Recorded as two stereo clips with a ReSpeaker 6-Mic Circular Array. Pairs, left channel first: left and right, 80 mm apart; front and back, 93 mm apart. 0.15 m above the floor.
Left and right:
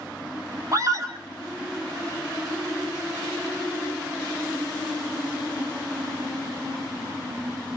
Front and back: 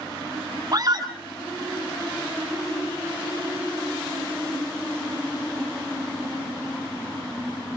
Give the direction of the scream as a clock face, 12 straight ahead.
4 o'clock.